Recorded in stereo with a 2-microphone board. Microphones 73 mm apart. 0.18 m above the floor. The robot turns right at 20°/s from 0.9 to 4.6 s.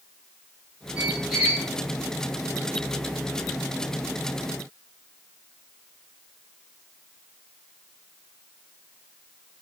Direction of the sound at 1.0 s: 15° right (ahead or behind).